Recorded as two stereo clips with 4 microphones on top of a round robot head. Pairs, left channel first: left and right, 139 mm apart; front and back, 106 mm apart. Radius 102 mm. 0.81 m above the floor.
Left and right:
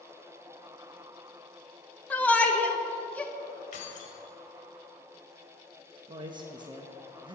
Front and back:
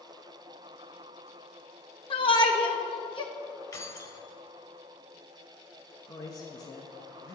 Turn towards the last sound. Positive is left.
turn(degrees=-40)